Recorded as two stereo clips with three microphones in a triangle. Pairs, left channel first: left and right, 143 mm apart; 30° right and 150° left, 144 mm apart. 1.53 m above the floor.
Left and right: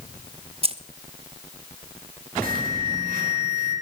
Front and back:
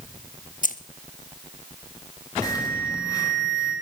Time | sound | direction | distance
0.6 | keys jangling | 45° right | 0.9 m
2.4 | an alarm | 95° right | 5 m